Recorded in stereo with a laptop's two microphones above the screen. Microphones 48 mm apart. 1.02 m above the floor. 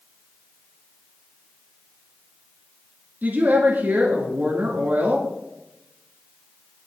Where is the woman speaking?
45° right (ahead or behind), 2 m.